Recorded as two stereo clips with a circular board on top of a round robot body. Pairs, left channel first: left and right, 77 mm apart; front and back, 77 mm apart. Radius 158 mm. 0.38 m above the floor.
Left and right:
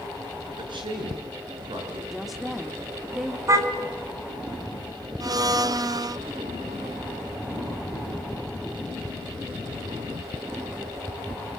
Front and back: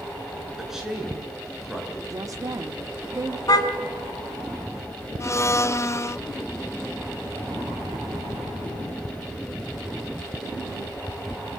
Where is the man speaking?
95° right, 8 m.